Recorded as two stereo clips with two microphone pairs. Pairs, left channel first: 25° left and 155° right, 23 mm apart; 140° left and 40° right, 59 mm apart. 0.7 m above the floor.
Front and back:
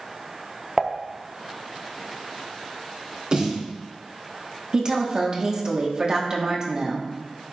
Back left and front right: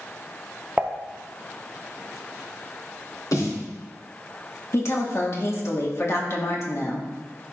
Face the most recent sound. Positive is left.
turn(degrees=160)